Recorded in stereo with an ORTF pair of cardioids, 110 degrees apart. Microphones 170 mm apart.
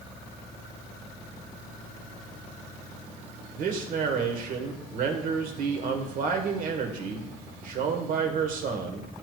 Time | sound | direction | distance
3.6 | a man speaking | 55° right | 1.4 m